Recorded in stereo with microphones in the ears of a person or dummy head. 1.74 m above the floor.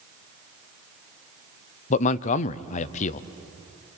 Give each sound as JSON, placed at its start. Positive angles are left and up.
{"t": 1.9, "sound": "a man speaking", "side_deg": 40, "distance_m": 0.7}